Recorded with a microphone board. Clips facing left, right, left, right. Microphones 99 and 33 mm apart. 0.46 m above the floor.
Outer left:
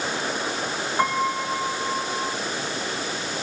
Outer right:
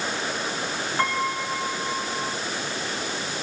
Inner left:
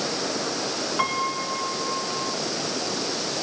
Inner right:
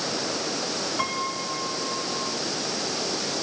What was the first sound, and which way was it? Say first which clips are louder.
A piano: outer left 3 dB, inner left 6 dB; 15° left (ahead or behind).